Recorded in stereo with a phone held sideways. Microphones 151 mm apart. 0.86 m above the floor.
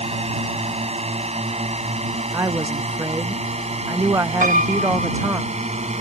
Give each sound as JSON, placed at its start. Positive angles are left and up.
{"t": 0.0, "sound": "a drone", "side_deg": -45}
{"t": 2.3, "sound": "a woman speaking", "side_deg": -20}
{"t": 4.4, "sound": "a piano", "side_deg": -65}